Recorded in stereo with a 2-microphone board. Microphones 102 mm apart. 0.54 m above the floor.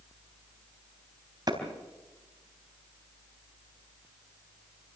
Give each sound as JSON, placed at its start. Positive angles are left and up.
{"t": 1.5, "sound": "a clap", "side_deg": -40, "distance_m": 3.5}